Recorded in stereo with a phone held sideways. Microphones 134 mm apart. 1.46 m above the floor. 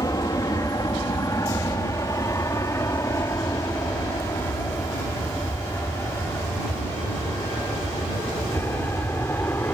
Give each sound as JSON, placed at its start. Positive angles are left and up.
{"t": 0.0, "sound": "an aircraft", "side_deg": 25}